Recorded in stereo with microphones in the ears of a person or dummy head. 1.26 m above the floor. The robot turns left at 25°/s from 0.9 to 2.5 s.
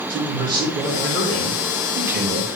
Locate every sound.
0.1 s a man speaking: 25° right, 1.3 m; by 2.5 s 65° right, 1.3 m